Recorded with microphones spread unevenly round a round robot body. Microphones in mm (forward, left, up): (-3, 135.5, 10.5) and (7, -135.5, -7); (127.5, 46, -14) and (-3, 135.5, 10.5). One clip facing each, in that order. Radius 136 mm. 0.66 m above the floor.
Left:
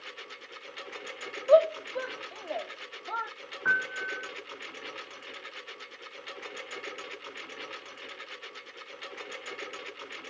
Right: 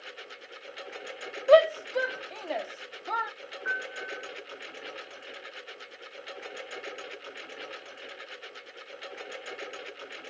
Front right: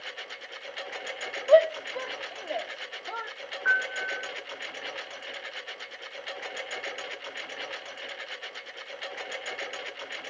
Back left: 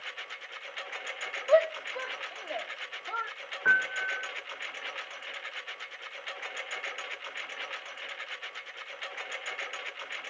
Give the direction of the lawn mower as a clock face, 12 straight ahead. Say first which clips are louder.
Right 1 dB, front right 5 dB; 11 o'clock.